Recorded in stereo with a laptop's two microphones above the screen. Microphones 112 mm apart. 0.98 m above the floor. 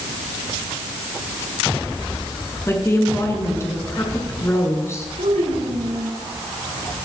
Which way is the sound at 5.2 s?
80° right.